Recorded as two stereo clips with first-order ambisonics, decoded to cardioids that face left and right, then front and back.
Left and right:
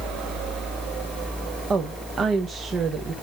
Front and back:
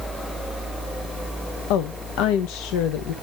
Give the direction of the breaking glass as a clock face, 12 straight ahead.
I don't hear breaking glass.